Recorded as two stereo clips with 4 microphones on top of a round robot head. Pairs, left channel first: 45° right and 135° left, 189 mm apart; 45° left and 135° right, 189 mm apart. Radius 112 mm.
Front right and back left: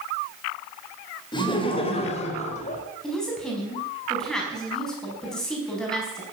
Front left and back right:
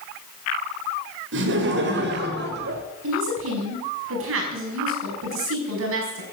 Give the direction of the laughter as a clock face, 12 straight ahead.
4 o'clock.